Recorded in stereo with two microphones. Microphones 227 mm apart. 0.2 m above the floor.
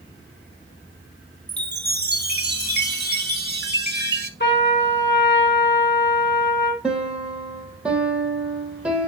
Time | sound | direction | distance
1.5 | a chime | 45° right (ahead or behind) | 0.9 m
4.4 | a trumpet | 50° left (ahead or behind) | 2.5 m
6.8 | a piano | 5° right (ahead or behind) | 1.5 m